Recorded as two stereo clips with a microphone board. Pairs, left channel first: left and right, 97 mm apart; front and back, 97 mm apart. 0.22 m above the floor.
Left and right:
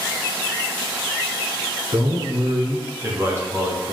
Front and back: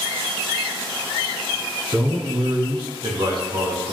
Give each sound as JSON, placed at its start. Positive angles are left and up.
{"t": 1.9, "sound": "a man speaking", "azimuth_deg": -120, "distance_m": 2.0}